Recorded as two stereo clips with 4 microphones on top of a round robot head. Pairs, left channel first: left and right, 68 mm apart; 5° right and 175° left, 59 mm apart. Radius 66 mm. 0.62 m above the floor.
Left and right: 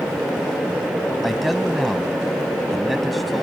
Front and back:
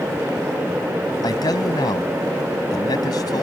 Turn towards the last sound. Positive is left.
turn(degrees=0)